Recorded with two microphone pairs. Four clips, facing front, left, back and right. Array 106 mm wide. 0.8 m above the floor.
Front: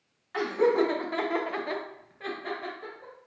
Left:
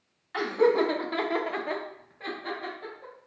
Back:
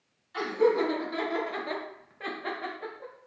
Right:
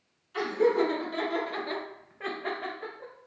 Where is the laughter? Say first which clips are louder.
Left 2 dB, front 1 dB; 45° left, 1.6 m; by 3.1 s 135° right, 1.3 m.